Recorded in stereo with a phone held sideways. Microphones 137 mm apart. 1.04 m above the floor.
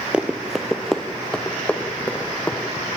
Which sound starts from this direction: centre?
Running footsteps, at 0.1 s.